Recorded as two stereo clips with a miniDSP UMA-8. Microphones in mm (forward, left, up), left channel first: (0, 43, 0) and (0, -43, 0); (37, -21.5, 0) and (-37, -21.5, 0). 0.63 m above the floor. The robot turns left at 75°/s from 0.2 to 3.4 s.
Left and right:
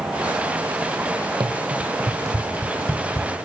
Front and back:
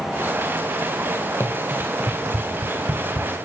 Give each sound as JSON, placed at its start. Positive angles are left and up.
{"t": 1.4, "sound": "running footsteps", "azimuth_deg": -60, "distance_m": 1.3}